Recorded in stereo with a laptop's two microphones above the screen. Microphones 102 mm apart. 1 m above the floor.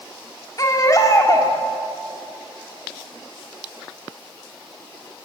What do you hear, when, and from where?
0.6 s a baby crying: 40° left (ahead or behind), 2 m